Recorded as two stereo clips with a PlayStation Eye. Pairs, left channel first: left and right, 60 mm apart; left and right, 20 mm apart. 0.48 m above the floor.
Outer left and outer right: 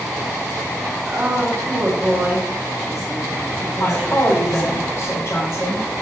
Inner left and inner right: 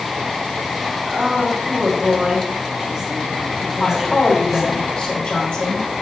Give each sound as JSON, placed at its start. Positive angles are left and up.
{"t": 1.1, "sound": "a woman speaking", "side_deg": -10, "distance_m": 3.0}
{"t": 3.8, "sound": "a woman speaking", "side_deg": 50, "distance_m": 3.5}